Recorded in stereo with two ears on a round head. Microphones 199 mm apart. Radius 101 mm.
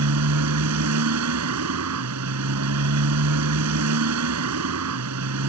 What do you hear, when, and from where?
0.0 s a motorcycle: 85° right